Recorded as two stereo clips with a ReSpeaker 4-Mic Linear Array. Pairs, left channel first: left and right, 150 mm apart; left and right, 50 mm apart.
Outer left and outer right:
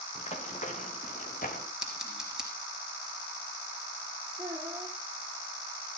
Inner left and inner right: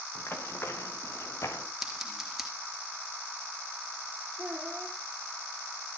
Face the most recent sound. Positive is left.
turn(degrees=-10)  # may be behind; listen again after turning